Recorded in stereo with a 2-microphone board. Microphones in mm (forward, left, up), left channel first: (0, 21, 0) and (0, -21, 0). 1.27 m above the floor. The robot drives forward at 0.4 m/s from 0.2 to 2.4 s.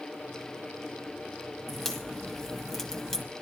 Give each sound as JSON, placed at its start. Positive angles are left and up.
{"t": 1.7, "sound": "a crack", "side_deg": 5, "distance_m": 1.7}